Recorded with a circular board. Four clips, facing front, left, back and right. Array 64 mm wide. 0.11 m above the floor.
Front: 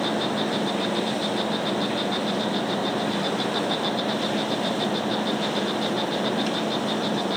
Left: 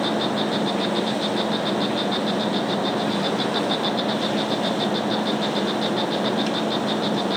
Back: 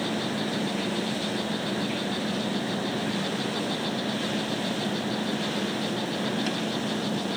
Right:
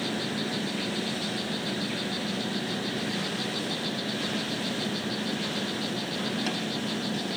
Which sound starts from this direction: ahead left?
An insect, at 0.0 s.